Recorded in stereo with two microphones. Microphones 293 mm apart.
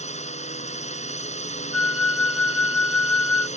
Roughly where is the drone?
Left.